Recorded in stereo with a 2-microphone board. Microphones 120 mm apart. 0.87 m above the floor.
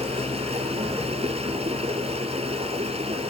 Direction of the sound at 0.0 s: 55° right (ahead or behind).